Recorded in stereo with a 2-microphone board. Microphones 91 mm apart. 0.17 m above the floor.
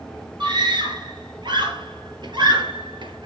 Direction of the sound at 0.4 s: 55° right (ahead or behind).